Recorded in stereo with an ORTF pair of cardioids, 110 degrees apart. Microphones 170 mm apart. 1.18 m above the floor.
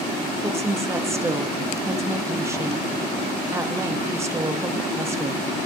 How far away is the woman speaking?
About 1.3 m.